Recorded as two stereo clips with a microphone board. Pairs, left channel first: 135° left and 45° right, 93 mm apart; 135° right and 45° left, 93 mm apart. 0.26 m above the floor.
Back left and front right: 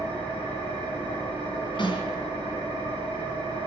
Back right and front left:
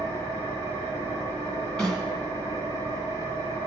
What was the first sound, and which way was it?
An engine running, 5° right.